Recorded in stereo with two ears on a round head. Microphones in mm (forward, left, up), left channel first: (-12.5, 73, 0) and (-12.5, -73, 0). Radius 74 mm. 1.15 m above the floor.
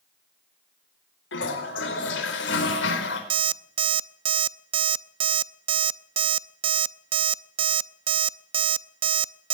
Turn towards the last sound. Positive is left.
turn(degrees=-30)  # may be behind; listen again after turning